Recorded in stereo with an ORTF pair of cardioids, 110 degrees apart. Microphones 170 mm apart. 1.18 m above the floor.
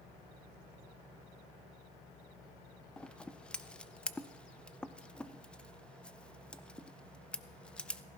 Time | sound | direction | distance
3.0 | scissors | 5° left | 0.5 m